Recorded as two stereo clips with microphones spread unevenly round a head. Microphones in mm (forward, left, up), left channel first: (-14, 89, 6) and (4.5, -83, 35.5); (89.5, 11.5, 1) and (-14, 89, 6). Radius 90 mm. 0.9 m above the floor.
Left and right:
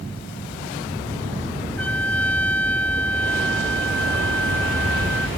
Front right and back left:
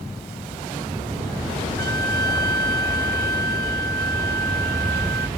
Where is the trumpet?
Straight behind.